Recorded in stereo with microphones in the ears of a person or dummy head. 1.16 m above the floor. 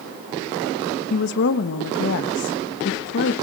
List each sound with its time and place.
1.1 s a woman speaking: 55° left (ahead or behind), 1.6 m